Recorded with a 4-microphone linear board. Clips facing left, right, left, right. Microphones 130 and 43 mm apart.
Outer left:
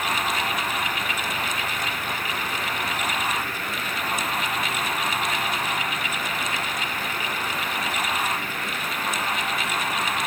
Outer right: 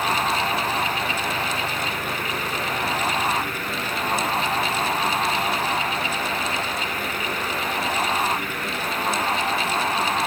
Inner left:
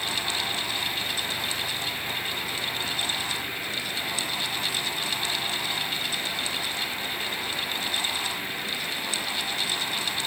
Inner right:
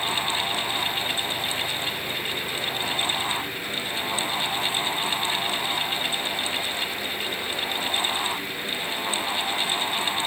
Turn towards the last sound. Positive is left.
No sound to turn to.